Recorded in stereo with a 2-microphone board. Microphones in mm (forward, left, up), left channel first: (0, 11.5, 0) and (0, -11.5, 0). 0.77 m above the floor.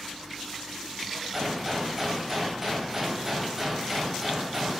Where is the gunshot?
15° right (ahead or behind), 3 m.